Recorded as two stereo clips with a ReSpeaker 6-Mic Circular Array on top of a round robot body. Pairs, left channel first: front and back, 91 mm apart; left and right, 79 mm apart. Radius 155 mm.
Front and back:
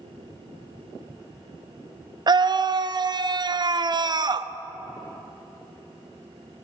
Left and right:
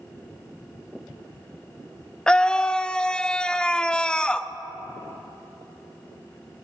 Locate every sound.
2.3 s a scream: 165° left, 0.9 m